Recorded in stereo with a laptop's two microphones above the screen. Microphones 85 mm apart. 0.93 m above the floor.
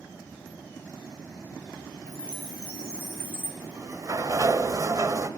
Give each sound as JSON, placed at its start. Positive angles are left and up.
{"t": 2.1, "sound": "a chime", "side_deg": 30, "distance_m": 3.0}
{"t": 3.6, "sound": "a sliding door", "side_deg": -40, "distance_m": 0.8}